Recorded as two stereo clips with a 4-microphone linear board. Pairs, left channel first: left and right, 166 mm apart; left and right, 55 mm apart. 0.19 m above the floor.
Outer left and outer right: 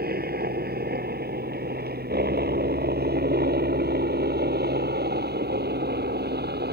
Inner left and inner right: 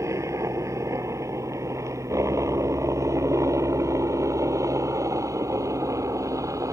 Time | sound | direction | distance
0.0 | a helicopter | 65° right (ahead or behind) | ?